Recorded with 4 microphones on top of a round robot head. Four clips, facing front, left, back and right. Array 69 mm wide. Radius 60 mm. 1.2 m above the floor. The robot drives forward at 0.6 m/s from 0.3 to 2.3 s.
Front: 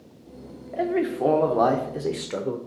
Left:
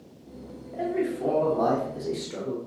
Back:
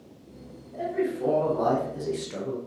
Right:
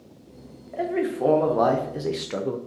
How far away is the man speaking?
About 1.6 m.